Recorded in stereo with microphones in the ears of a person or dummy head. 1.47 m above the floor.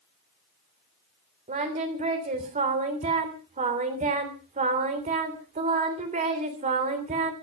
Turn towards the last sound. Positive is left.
turn(degrees=-35)  # may be behind; listen again after turning